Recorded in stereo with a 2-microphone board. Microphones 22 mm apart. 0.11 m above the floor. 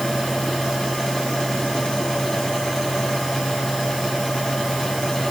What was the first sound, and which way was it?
Only background noise.